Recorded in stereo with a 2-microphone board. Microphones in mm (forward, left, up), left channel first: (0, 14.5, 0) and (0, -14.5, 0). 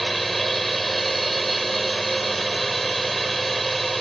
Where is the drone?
5° left (ahead or behind).